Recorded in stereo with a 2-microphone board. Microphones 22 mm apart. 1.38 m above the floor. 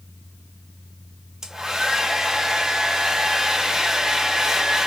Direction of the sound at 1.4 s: 20° right (ahead or behind).